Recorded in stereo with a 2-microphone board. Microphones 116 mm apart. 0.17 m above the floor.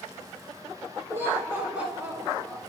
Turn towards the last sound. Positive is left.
turn(degrees=0)  # may be behind; listen again after turning